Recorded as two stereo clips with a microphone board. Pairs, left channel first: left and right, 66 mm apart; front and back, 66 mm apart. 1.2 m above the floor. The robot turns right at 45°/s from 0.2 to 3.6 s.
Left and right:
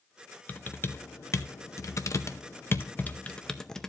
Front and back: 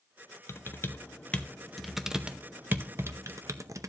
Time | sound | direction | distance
0.5 | typing on a keyboard | 30° left | 0.6 m